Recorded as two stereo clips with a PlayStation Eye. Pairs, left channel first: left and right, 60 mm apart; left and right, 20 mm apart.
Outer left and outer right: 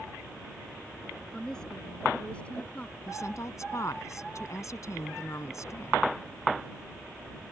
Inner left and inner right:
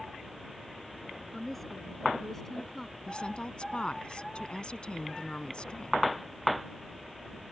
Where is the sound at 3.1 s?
60° left (ahead or behind).